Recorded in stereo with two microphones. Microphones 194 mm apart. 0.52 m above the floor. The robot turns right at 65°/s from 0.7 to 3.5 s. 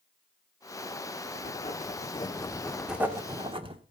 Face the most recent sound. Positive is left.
turn(degrees=-135)